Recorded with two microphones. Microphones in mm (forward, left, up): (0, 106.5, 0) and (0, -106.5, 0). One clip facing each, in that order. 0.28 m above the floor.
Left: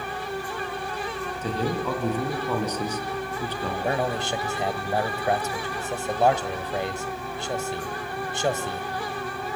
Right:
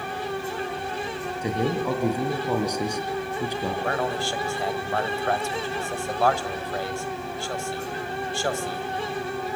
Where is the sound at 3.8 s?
20° left (ahead or behind), 1.4 m.